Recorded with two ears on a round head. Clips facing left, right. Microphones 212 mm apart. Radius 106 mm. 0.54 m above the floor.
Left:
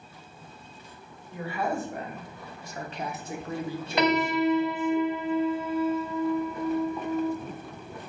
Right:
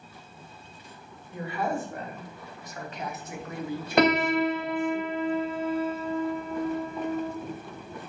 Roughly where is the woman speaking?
Centre.